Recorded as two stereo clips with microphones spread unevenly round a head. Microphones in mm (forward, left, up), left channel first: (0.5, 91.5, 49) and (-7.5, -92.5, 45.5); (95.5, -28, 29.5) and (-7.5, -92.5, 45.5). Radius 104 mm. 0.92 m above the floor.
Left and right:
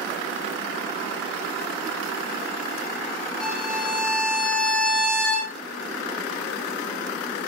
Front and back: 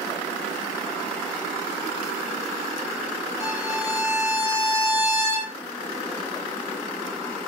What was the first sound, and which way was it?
A violin, straight ahead.